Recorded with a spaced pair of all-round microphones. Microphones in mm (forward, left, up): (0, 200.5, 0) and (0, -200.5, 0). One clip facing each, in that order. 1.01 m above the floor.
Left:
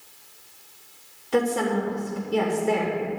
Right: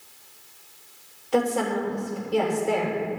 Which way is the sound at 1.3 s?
30° left (ahead or behind).